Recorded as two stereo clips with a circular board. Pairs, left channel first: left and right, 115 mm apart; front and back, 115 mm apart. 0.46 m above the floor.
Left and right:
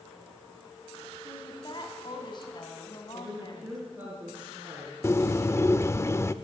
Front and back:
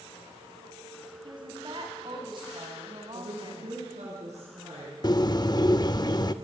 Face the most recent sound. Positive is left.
turn(degrees=35)